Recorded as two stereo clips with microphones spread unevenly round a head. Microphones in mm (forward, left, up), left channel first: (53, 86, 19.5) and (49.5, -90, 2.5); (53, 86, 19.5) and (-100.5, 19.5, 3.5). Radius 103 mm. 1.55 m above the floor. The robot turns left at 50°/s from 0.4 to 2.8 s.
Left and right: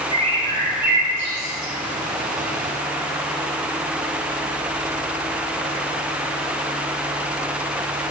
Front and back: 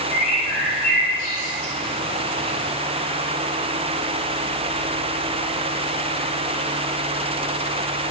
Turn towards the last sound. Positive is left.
turn(degrees=-155)